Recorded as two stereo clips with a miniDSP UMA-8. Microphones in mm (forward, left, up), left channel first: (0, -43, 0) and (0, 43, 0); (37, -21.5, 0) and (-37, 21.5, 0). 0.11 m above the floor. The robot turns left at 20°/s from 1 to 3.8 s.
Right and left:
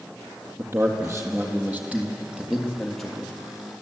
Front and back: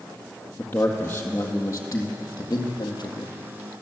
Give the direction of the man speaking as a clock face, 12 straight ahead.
11 o'clock.